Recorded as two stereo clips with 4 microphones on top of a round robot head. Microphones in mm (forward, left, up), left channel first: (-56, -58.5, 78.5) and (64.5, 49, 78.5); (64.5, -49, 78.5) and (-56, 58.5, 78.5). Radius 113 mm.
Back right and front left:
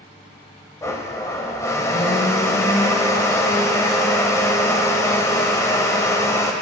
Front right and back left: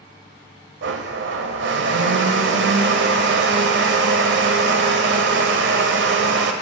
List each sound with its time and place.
0.8 s a blender: 150° left, 0.6 m